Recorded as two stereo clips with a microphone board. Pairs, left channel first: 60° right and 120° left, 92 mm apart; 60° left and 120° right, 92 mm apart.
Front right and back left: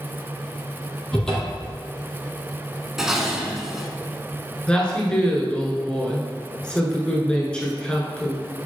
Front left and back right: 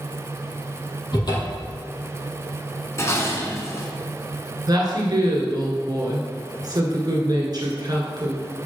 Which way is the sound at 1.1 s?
20° left.